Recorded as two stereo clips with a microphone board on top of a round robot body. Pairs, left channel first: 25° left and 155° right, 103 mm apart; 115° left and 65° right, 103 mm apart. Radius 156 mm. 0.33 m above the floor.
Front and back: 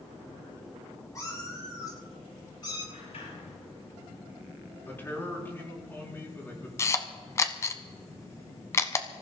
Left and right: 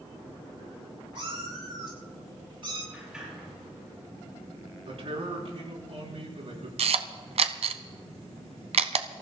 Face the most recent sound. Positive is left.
turn(degrees=-45)